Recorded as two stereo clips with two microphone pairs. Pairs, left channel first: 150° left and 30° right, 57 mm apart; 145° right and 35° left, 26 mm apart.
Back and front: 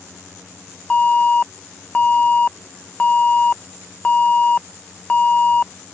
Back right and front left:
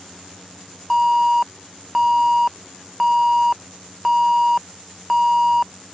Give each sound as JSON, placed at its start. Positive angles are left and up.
{"t": 0.9, "sound": "an alarm", "azimuth_deg": 110}